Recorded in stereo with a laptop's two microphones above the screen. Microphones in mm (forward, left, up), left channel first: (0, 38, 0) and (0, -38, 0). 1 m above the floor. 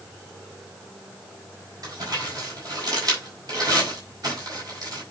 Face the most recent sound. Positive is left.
turn(degrees=-50)  # may be behind; listen again after turning